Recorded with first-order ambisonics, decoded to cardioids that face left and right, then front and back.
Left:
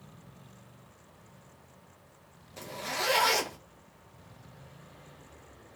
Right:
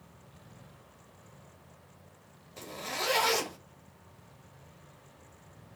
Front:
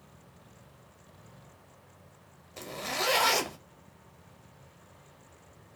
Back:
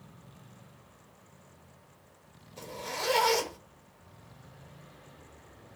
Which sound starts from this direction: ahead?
A zipper, at 2.6 s.